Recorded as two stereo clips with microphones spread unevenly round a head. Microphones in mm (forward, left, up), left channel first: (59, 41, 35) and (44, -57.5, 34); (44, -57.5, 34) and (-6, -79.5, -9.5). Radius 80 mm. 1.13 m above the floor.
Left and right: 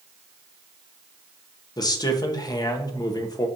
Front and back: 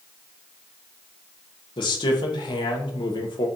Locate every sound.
1.8 s a man speaking: 35° left, 0.8 m